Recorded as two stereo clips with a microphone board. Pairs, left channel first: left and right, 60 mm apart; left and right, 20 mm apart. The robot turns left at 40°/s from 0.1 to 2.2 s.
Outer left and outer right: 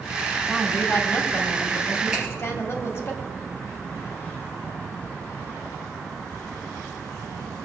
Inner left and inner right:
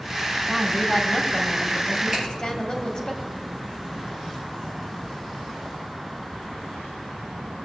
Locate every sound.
0.5 s a woman speaking: 155° left, 1.2 m; by 3.1 s 85° left, 1.2 m
2.1 s a finger snap: 15° right (ahead or behind), 4.5 m